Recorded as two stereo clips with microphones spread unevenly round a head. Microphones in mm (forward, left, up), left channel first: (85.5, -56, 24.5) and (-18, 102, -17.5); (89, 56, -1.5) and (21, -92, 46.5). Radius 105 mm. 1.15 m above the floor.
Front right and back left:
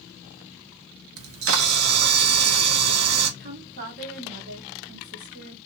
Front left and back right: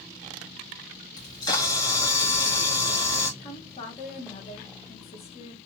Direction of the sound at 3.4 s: 110° left.